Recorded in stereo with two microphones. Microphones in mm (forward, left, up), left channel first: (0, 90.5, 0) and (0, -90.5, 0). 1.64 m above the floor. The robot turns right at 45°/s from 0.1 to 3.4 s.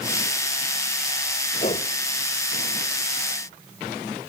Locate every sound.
1.6 s a whoosh: 40° left (ahead or behind); by 1.9 s 55° left (ahead or behind)